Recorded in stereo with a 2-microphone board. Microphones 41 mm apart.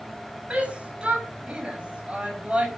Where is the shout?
30° right (ahead or behind), 5 m.